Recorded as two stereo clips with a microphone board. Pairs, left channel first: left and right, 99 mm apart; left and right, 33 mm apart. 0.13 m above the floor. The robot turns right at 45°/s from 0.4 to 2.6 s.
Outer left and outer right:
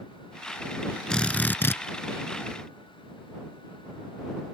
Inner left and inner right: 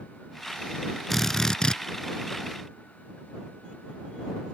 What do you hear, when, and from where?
1.1 s a drill: 10° left; by 1.8 s 40° left